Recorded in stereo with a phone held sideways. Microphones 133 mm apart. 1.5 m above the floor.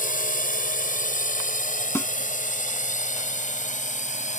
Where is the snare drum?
20° left (ahead or behind).